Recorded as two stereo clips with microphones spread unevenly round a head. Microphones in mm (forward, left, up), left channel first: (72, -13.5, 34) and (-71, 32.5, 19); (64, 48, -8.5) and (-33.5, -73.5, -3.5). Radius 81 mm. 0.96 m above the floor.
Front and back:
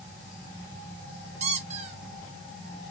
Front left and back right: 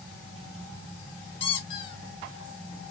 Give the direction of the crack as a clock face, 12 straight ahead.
I don't hear a crack.